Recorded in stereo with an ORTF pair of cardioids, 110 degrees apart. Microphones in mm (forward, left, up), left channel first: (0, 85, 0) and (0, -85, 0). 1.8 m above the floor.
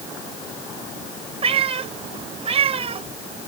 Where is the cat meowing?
35° right.